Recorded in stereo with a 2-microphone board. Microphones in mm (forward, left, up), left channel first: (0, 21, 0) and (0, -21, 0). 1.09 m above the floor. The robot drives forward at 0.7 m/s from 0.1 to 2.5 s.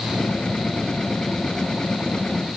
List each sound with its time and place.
Only background noise.